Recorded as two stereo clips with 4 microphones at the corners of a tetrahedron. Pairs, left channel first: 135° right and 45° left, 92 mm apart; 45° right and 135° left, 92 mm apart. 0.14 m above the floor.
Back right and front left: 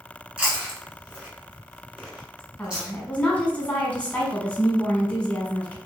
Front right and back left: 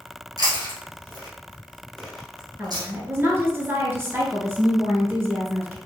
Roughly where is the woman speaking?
Behind.